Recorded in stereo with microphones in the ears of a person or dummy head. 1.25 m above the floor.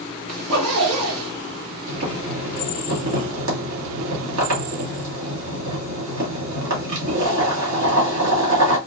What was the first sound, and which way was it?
A zipper, 80° right.